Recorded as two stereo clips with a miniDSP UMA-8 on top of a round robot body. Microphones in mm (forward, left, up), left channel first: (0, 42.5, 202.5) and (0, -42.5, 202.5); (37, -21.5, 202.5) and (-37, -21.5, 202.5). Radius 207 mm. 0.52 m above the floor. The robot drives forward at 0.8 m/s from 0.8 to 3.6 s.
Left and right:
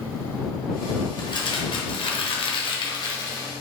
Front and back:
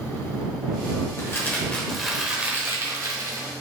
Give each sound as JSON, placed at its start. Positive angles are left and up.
{"t": 1.2, "sound": "crumpling", "azimuth_deg": 55, "distance_m": 1.1}